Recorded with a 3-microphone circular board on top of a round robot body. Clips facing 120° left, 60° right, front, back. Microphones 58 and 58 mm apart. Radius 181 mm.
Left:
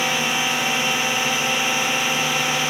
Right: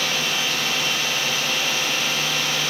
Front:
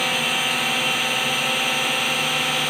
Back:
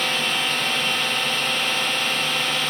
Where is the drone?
80° left.